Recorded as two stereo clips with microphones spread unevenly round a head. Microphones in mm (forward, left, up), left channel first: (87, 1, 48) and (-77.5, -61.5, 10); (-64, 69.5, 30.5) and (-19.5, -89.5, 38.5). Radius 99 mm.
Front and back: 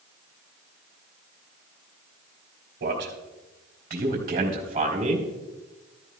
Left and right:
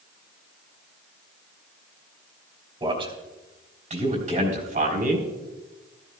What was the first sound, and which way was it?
A man speaking, 135° right.